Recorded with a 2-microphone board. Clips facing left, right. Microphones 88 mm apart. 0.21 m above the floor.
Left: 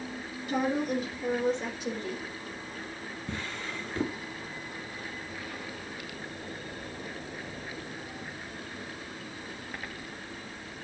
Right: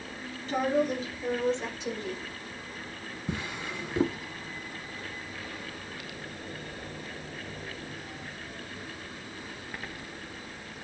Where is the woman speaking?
10° left (ahead or behind), 4 m; by 2.2 s 5° left (ahead or behind), 5.5 m.